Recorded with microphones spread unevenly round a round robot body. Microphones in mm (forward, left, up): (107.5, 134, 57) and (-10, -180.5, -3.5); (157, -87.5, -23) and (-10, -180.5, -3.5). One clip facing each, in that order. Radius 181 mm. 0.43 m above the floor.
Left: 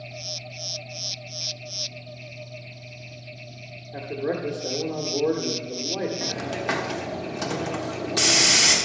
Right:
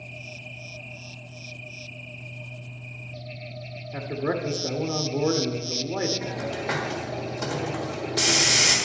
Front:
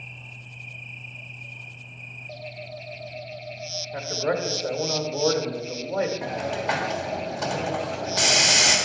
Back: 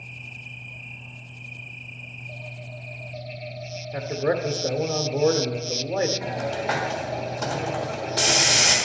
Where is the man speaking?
125° right, 1.4 m.